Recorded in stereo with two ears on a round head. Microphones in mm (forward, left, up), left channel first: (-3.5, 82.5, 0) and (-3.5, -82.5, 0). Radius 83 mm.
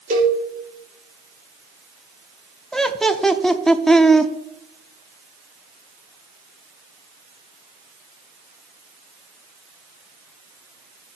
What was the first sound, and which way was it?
A cowbell, 40° right (ahead or behind).